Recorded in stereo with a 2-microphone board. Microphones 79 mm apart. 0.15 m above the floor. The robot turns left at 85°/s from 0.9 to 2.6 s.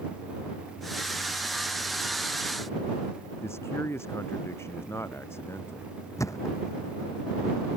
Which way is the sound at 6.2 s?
40° left (ahead or behind).